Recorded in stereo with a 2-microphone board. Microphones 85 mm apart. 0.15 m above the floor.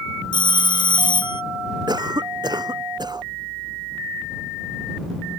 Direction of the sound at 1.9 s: 55° right (ahead or behind).